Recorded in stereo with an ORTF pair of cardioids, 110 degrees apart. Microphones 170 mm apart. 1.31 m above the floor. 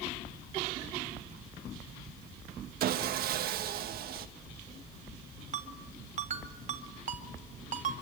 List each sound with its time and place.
2.8 s sawing: 60° right, 1.8 m
5.5 s a ringtone: 45° right, 3.5 m